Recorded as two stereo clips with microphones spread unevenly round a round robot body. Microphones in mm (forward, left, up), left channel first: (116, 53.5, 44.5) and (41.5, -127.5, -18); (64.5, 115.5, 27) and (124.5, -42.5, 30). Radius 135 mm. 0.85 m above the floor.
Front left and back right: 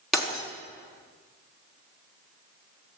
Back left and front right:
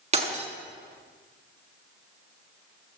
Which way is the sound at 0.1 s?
20° right.